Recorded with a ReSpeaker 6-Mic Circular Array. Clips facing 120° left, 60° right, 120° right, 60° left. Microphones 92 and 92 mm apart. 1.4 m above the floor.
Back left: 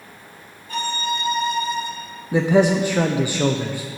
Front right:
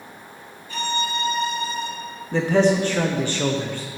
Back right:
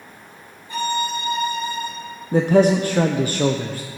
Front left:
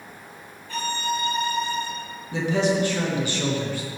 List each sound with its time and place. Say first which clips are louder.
0.7 s a violin: back left 1 dB, back right 4 dB; 165° left, 2.0 m
2.3 s a man speaking: back left 2 dB, back right 7 dB; 160° right, 0.6 m